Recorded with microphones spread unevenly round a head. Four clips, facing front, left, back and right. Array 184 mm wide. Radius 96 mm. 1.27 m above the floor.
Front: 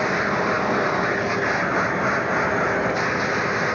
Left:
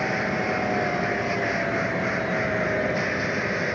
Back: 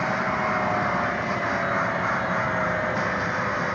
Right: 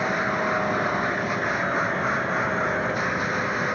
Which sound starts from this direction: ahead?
A machine running, at 0.0 s.